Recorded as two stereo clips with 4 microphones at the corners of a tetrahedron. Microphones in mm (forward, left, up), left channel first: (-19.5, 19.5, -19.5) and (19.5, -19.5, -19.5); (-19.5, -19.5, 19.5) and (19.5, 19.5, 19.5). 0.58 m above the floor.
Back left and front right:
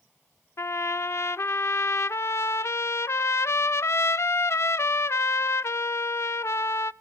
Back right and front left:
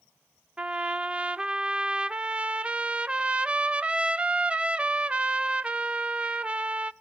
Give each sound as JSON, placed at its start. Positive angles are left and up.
{"t": 0.6, "sound": "a trumpet", "azimuth_deg": 110, "distance_m": 0.5}